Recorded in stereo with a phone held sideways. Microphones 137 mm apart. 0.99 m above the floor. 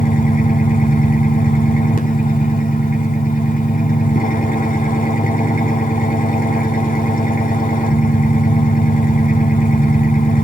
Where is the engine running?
85° left, 2 m.